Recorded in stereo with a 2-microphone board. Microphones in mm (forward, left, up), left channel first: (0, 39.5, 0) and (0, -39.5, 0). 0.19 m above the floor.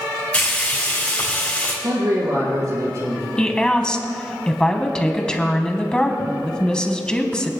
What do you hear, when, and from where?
0.3 s frying: 20° left (ahead or behind), 4.5 m
1.8 s a man speaking: 50° right (ahead or behind), 3 m
3.4 s a woman speaking: 10° left (ahead or behind), 1.2 m